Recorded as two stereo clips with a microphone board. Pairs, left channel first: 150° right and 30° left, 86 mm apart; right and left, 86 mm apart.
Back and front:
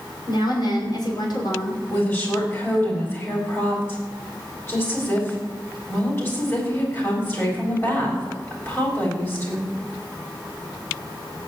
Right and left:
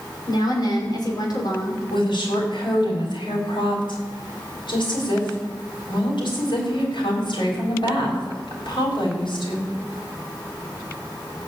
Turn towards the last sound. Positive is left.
turn(degrees=-90)